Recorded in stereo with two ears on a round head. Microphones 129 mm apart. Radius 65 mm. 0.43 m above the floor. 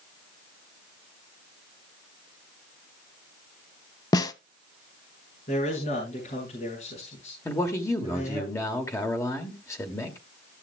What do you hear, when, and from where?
4.1 s a snare drum: 25° left (ahead or behind), 0.6 m
5.5 s a man speaking: 50° left (ahead or behind), 6 m
7.5 s a man speaking: 20° left (ahead or behind), 1.7 m